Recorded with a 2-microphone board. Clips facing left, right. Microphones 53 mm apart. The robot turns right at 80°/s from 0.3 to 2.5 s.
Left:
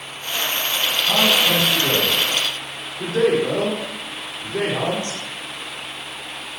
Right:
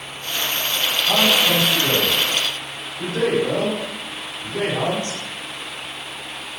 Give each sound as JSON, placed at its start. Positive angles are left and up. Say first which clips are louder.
{"t": 1.1, "sound": "a man speaking", "louder": "even", "side_deg": -35, "distance_m": 1.6}